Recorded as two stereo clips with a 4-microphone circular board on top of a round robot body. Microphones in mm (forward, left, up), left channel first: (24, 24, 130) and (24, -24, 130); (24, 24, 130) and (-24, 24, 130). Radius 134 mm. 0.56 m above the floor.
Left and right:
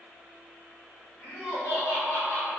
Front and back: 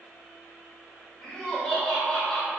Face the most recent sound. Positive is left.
turn(degrees=75)